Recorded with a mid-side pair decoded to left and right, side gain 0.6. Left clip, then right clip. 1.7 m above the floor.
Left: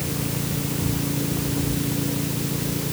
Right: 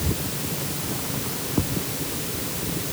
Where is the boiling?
No boiling in this recording.